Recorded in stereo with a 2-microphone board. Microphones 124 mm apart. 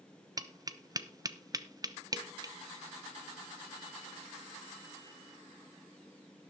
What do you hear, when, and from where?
0.4 s tapping: 30° right (ahead or behind), 0.7 m